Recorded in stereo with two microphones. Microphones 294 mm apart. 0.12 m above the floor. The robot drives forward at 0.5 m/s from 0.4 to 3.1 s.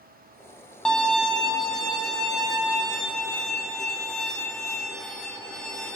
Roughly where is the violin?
Centre.